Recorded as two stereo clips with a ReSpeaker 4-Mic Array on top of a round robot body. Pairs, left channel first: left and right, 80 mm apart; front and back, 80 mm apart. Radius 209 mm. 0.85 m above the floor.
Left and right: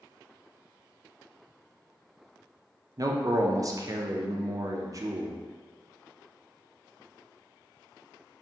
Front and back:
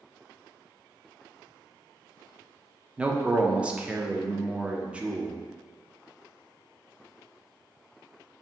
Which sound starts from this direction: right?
A man speaking, at 3.0 s.